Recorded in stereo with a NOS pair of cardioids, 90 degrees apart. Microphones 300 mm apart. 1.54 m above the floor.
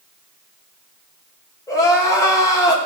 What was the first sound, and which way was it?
Crying, 10° left.